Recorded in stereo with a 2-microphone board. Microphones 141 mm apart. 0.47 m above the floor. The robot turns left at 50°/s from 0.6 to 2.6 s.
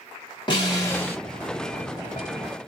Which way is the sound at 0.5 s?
35° left (ahead or behind).